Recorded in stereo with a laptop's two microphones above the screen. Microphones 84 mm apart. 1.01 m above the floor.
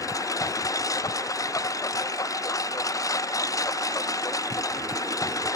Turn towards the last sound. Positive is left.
turn(degrees=40)  # may be behind; listen again after turning